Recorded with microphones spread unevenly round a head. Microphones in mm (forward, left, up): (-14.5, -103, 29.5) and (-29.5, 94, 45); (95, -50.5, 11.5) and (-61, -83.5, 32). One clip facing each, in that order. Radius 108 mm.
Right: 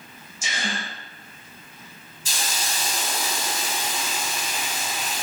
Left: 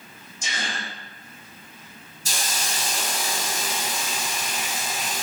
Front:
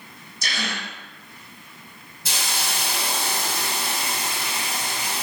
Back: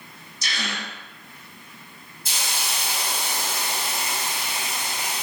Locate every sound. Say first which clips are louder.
0.4 s a gasp: right 2 dB, front 1 dB; straight ahead, 1.2 m
2.2 s a hiss: even, front 2 dB; 40° left, 1.0 m